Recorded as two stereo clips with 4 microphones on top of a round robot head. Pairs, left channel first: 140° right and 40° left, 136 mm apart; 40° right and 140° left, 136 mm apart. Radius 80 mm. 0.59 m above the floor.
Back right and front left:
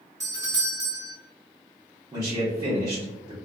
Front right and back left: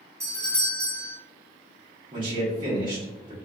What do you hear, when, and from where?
0.2 s a doorbell: 90° left, 1.1 m
2.1 s a man speaking: 100° left, 0.9 m